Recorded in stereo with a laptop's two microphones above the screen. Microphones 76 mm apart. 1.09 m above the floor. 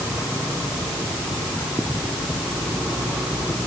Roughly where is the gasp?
No gasp in this recording.